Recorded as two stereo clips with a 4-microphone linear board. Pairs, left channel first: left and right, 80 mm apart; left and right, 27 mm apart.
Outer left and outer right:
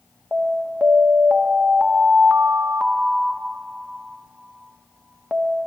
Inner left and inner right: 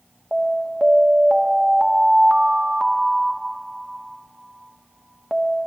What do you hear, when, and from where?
0.3 s an alarm: 15° right (ahead or behind), 1.4 m